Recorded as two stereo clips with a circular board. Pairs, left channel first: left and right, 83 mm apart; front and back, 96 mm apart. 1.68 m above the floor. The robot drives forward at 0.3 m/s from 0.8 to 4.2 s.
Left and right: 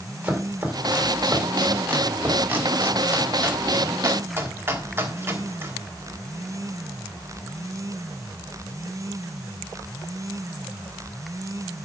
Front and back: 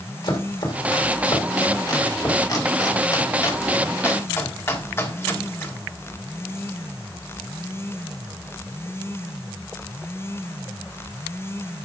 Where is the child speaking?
No child speaking in this recording.